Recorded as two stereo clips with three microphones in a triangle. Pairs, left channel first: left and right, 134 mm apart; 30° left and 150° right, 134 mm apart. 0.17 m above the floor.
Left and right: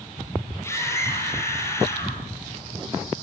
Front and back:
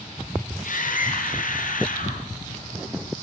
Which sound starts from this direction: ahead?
A scream, at 0.6 s.